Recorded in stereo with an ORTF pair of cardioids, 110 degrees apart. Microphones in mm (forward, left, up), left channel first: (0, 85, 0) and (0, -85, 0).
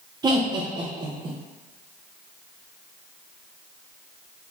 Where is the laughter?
25° right, 0.8 m.